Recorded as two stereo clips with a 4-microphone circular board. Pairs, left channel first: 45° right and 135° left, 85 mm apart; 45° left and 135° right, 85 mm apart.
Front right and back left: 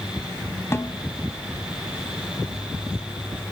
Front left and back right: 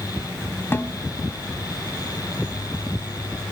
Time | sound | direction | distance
0.7 | a snare drum | 5° right | 1.5 m